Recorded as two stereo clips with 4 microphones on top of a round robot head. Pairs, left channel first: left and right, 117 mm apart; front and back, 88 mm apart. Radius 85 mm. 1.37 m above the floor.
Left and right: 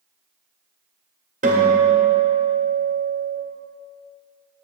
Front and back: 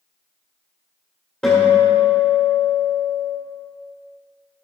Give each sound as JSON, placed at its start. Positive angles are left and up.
{"t": 1.4, "sound": "a guitar", "azimuth_deg": -85, "distance_m": 2.0}